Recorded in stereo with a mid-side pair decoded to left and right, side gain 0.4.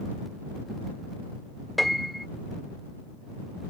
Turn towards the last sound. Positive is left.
turn(degrees=0)